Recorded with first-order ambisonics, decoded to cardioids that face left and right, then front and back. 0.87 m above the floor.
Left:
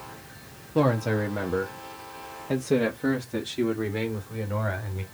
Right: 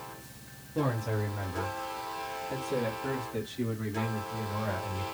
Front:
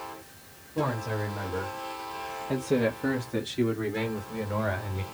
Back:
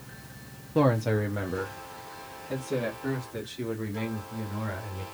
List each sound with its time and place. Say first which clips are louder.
0.8 s a man speaking: left 8 dB, back 5 dB; 140° left, 1.2 m; by 5.0 s 25° left, 2.5 m